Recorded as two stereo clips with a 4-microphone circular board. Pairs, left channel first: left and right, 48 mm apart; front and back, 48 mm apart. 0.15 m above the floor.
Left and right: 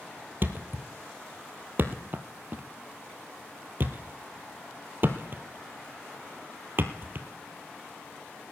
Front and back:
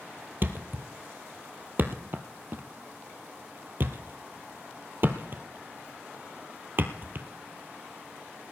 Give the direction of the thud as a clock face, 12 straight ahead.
5 o'clock.